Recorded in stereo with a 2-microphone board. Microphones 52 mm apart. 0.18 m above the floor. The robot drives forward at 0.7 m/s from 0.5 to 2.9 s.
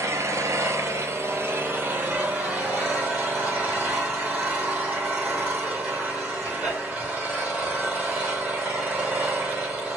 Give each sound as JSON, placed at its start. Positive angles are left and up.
{"t": 0.0, "sound": "an engine running", "side_deg": -75, "distance_m": 1.0}